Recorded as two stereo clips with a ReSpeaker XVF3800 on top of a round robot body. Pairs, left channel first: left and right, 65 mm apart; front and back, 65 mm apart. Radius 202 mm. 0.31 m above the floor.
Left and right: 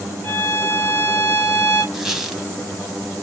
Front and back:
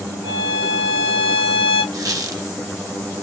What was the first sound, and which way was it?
A violin, 150° left.